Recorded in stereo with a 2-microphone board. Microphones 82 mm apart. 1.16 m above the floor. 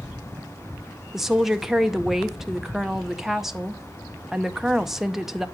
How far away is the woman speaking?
About 0.6 m.